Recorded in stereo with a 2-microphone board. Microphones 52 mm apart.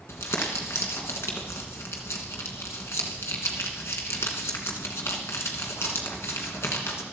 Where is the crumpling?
60° left (ahead or behind), 2.5 m.